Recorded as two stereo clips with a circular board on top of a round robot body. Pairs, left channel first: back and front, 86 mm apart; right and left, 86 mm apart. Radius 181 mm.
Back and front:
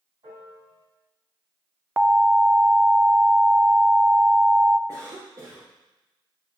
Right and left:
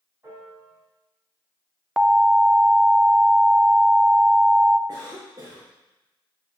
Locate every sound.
0.2 s a piano: 30° left, 2.5 m
2.0 s an alarm: 20° left, 0.8 m
4.9 s a cough: 40° left, 1.7 m